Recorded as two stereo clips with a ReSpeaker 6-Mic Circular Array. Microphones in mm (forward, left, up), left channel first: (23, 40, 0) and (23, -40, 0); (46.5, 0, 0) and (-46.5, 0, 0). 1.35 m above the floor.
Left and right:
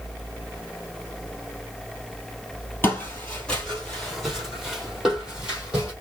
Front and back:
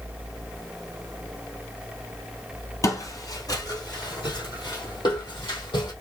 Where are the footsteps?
35° left, 1.8 m; by 5.9 s 15° right, 2.5 m.